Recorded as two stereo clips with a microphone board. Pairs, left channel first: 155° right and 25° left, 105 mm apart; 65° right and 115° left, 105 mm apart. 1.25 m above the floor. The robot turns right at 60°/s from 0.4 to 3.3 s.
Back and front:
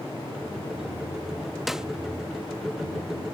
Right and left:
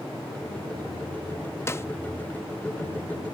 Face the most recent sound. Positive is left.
turn(degrees=35)